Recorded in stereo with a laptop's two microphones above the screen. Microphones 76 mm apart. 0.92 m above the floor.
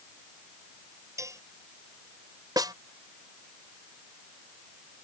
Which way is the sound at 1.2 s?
45° right (ahead or behind).